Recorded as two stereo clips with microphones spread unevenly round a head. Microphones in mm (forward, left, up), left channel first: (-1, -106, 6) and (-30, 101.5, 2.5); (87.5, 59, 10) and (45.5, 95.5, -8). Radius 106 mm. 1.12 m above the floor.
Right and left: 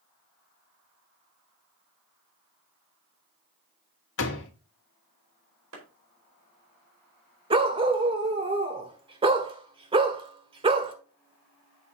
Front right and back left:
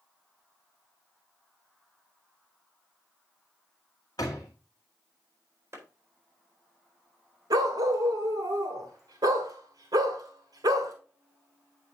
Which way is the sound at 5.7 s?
105° left.